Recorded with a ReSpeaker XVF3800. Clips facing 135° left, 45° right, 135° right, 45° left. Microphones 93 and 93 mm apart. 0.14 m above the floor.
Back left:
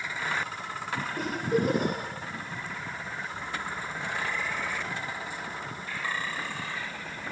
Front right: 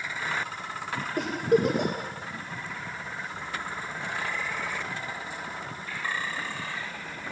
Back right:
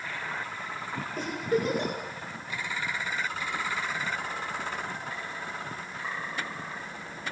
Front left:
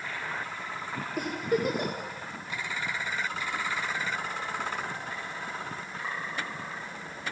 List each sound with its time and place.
1.2 s a giggle: 35° right, 5 m